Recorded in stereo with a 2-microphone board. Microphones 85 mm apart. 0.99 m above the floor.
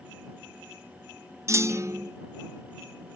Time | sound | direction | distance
1.5 | a clunk | 35° right (ahead or behind) | ?